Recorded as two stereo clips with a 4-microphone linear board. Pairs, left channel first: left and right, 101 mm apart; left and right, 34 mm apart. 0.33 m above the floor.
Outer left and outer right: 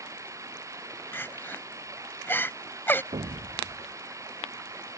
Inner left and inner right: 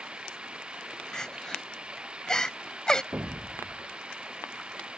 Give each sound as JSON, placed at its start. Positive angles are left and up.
{"t": 0.0, "sound": "running water", "side_deg": -30}
{"t": 1.1, "sound": "crying", "side_deg": 20}
{"t": 3.1, "sound": "an explosion", "side_deg": -75}